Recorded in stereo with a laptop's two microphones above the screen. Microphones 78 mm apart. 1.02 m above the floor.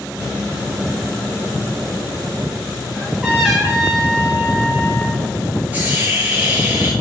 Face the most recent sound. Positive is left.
turn(degrees=-20)  # may be behind; listen again after turning